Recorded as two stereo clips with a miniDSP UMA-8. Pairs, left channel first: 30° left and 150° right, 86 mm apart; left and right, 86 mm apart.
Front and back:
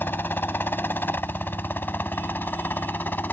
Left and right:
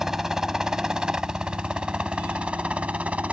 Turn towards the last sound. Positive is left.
turn(degrees=-25)